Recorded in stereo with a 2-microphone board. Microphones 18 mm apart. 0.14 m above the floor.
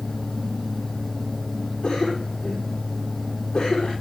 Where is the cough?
75° left (ahead or behind), 5.5 m.